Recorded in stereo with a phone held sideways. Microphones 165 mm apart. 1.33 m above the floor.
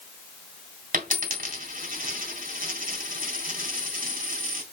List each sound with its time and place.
0.9 s a dropped coin: 55° right (ahead or behind), 3 m